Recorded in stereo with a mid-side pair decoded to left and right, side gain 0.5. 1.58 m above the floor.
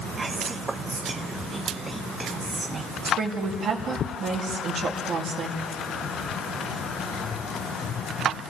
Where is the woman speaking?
55° right, 2.5 m.